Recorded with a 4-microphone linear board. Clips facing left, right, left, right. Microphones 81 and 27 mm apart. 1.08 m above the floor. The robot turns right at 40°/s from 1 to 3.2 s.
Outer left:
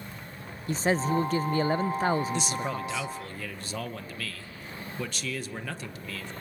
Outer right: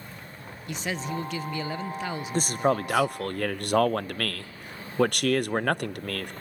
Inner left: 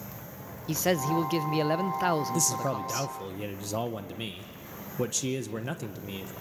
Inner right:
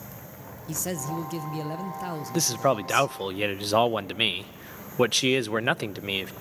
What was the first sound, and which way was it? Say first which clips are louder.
A man speaking: outer left 6 dB, inner left 5 dB; 60° left.